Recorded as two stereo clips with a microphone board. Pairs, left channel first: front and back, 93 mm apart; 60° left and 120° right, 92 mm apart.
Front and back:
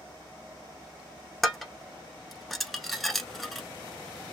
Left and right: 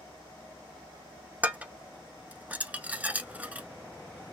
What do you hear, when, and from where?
1.4 s dishes clattering: 85° right, 0.8 m